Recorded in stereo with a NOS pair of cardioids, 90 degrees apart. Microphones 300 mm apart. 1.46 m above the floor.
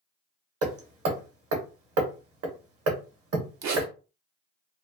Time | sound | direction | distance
0.6 | hammering | 50° right | 1.0 m
3.6 | a zipper | 60° right | 0.7 m